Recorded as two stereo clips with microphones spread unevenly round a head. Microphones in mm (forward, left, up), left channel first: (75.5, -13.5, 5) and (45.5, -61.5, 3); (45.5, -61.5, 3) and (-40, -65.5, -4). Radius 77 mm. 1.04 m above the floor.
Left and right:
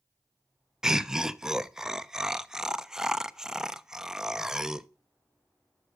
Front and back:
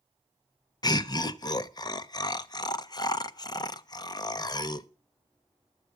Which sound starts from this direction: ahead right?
Laughter, at 0.8 s.